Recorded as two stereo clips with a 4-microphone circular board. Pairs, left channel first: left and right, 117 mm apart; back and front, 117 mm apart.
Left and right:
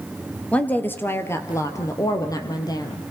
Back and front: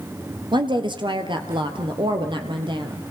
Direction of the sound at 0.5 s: 15° left.